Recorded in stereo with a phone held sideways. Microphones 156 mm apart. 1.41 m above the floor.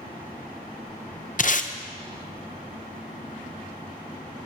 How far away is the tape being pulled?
About 0.7 m.